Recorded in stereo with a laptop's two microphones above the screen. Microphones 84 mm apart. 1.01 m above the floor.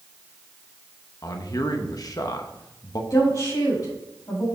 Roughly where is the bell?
No bell in this recording.